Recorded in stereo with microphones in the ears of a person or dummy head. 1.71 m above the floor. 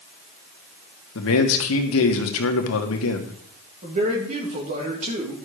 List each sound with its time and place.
1.1 s a man speaking: 75° left (ahead or behind), 2.0 m
3.8 s a man speaking: 40° right (ahead or behind), 3 m